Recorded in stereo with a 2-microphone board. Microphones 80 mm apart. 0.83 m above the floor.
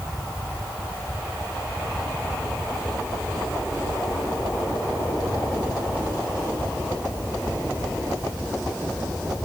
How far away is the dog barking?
I don't hear a dog barking.